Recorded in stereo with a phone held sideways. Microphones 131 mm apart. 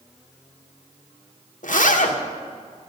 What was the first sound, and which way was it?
A zipper, 80° left.